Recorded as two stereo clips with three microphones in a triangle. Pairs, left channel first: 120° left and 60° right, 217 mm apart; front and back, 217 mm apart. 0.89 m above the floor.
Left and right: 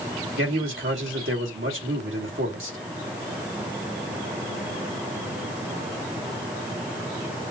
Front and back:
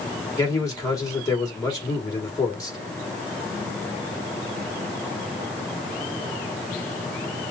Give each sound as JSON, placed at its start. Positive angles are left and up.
{"t": 0.4, "sound": "a man speaking", "azimuth_deg": -70, "distance_m": 2.5}